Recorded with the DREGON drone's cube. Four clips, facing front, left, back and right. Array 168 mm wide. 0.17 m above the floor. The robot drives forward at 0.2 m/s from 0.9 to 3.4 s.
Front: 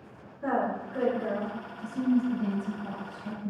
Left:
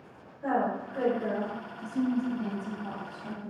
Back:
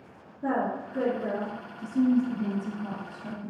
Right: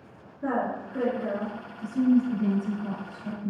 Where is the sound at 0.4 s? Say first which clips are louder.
Even, even; 30° right, 1.7 m; by 1.5 s 35° right, 1.7 m.